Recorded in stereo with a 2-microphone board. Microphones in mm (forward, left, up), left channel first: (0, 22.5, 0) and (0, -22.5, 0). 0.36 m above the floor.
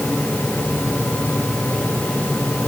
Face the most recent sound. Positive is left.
No sound to turn to.